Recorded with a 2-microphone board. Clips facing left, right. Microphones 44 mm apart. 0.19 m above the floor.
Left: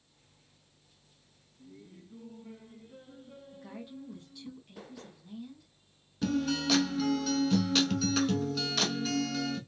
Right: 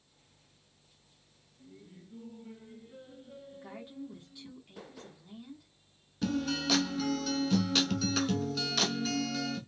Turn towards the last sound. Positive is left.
turn(degrees=0)  # may be behind; listen again after turning